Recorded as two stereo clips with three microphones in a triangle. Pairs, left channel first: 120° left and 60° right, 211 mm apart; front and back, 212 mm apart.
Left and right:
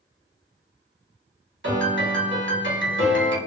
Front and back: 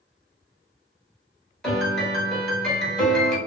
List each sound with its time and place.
1.6 s a piano: 90° right, 1.0 m